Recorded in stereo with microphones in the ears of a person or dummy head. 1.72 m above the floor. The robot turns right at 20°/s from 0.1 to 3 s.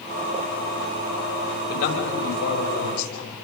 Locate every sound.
1.7 s a man speaking: 55° left (ahead or behind), 6 m; by 3.3 s 80° left, 6 m